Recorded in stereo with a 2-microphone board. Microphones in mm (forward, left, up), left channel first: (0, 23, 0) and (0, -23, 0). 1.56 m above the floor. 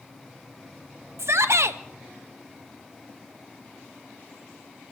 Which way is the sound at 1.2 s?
75° right (ahead or behind).